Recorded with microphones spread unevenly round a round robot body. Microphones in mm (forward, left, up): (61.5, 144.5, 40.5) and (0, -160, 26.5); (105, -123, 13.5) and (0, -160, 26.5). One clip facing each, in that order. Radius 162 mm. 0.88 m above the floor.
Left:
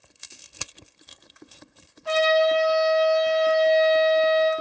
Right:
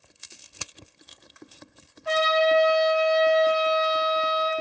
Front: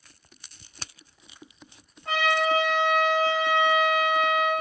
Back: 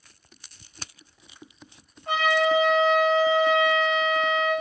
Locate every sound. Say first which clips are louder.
2.0 s a trumpet: left 2 dB, back 2 dB; 35° left, 3 m